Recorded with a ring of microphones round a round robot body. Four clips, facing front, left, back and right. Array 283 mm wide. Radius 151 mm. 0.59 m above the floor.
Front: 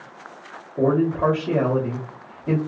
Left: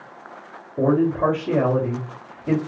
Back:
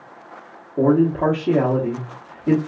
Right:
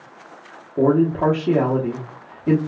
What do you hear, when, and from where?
0.8 s a man speaking: 125° right, 1.2 m